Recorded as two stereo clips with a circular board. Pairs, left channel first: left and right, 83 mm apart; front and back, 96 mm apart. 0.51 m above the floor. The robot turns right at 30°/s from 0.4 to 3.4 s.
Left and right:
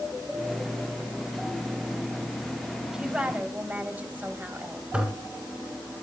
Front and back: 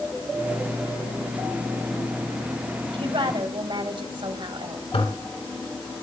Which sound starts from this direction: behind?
A woman speaking, at 2.9 s.